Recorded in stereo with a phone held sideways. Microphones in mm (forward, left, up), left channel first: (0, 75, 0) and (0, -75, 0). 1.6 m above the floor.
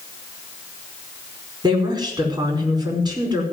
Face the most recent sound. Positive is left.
turn(degrees=-30)  # may be behind; listen again after turning